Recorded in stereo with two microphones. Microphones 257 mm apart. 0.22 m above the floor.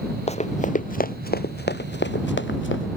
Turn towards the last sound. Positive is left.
turn(degrees=50)  # may be behind; listen again after turning